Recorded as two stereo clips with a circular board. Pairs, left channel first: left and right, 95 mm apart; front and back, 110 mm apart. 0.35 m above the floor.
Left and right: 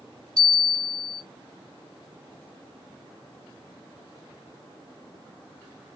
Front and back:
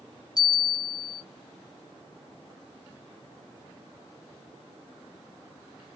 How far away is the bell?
About 1.6 m.